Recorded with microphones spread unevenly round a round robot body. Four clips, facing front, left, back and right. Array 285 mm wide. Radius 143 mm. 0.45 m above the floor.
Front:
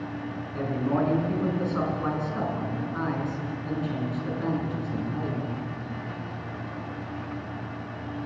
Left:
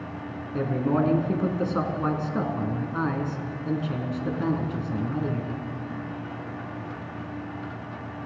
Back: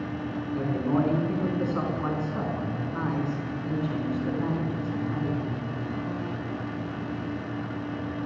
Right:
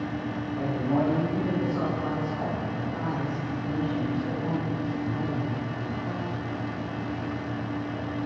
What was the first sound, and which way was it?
A man speaking, 85° left.